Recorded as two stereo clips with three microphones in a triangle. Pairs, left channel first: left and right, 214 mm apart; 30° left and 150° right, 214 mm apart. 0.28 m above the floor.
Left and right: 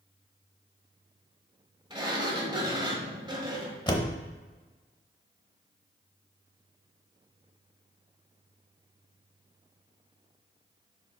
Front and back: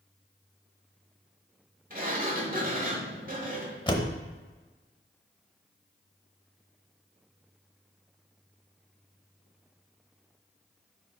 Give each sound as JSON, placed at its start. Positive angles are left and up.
{"t": 1.9, "sound": "a sliding door", "azimuth_deg": -150, "distance_m": 1.2}
{"t": 3.9, "sound": "a door slam", "azimuth_deg": 55, "distance_m": 0.7}